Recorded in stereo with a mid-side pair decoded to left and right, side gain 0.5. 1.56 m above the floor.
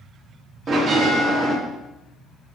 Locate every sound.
0.7 s a bell: 50° right, 3.5 m